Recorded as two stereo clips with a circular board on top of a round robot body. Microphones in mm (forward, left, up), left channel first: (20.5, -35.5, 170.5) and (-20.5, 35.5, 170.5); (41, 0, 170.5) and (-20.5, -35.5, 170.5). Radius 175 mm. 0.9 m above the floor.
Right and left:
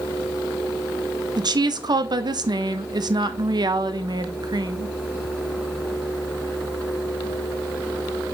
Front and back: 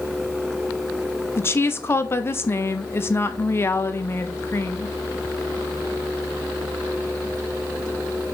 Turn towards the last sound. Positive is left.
turn(degrees=85)